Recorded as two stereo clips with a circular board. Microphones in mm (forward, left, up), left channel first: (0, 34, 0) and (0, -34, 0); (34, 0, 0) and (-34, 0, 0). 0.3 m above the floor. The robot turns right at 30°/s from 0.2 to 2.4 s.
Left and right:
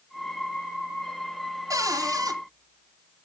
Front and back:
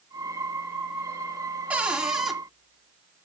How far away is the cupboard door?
About 1.4 m.